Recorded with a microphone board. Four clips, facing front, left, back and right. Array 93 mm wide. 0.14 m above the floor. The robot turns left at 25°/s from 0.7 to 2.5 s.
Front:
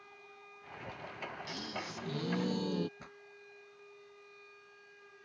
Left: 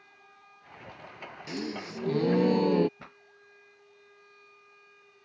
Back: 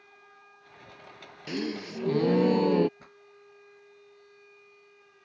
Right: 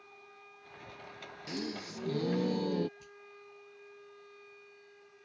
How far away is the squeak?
No squeak in this recording.